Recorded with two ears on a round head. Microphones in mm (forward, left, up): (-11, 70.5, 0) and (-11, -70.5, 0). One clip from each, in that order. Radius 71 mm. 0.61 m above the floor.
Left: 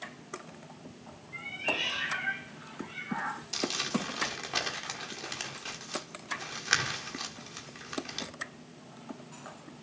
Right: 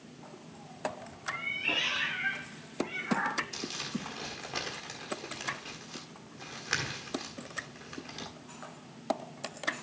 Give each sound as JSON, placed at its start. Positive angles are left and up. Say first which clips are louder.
{"t": 1.3, "sound": "a cat meowing", "louder": "right 1 dB", "side_deg": -60, "distance_m": 6.0}
{"t": 3.5, "sound": "crumpling", "louder": "left 6 dB", "side_deg": 35, "distance_m": 1.7}